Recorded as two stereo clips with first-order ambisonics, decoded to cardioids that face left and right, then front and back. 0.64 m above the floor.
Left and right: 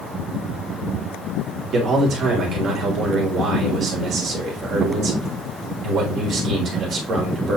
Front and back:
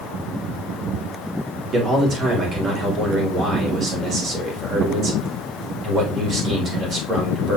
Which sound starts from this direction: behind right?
A man speaking, at 1.7 s.